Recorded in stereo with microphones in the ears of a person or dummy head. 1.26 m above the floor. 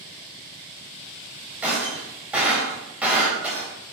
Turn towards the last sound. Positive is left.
turn(degrees=-10)  # may be behind; listen again after turning